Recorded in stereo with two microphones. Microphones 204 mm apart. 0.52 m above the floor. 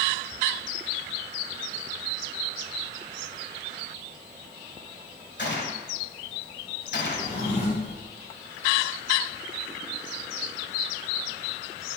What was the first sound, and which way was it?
A gunshot, 60° left (ahead or behind).